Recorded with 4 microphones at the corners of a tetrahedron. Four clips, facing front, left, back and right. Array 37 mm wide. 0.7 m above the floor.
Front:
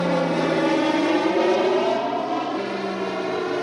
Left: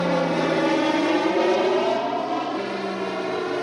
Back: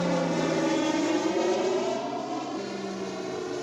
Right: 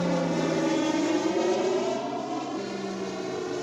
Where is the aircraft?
55° left; by 3.6 s 40° left.